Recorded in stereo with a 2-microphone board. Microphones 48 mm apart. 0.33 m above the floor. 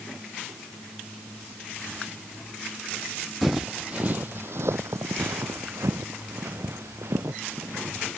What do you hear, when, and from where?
3.4 s footsteps: centre (ahead or behind); by 8.1 s 60° right (ahead or behind)